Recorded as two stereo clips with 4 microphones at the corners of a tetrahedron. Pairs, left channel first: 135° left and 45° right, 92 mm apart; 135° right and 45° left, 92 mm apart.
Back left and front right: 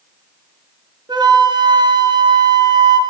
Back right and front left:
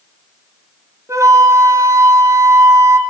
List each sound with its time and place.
1.1 s a flute: 10° right, 0.7 m